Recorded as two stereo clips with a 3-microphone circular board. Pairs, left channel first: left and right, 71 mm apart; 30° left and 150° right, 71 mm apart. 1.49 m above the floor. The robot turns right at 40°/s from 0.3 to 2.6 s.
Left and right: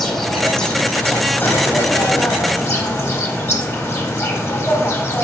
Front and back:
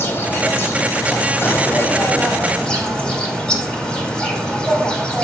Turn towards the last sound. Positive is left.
turn(degrees=95)